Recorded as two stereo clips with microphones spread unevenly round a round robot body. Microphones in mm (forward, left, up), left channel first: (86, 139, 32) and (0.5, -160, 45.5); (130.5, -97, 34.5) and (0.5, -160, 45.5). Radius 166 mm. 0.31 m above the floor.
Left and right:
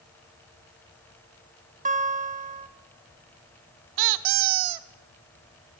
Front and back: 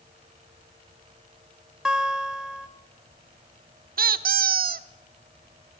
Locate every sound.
1.9 s a guitar: 65° right, 1.7 m
4.0 s a squeak: 130° right, 0.6 m